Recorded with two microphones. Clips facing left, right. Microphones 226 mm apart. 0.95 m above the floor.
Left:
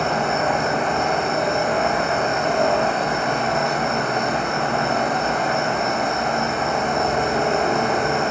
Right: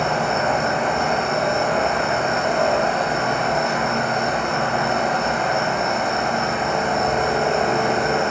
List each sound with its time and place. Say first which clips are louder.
0.0 s an insect: even; 30° left (ahead or behind), 1.5 m